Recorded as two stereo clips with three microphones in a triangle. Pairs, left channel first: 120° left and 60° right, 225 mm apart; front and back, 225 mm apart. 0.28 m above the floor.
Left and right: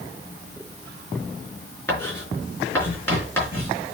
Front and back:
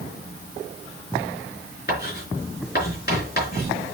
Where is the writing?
40° left, 4 m.